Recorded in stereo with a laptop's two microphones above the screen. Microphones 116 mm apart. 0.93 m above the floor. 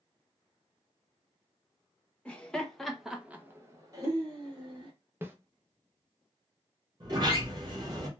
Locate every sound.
2.2 s laughter: 10° left (ahead or behind), 1.0 m; by 4.9 s 35° right (ahead or behind), 1.0 m
5.2 s a snare drum: 20° right (ahead or behind), 0.5 m
7.0 s a sliding door: 35° right (ahead or behind), 0.9 m